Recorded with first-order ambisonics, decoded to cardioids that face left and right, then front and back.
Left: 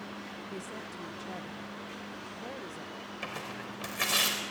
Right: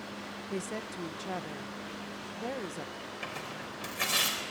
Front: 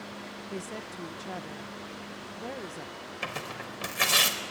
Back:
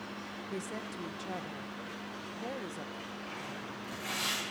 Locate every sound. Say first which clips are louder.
0.5 s a woman speaking: right 7 dB, front 1 dB; 85° right, 0.7 m
3.2 s tearing paper: left 1 dB, front 10 dB; 5° left, 4.5 m